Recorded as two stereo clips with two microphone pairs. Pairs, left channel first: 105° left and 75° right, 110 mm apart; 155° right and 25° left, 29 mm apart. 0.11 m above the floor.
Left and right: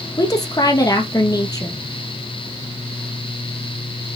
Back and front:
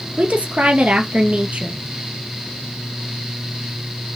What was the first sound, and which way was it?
A woman speaking, 55° left.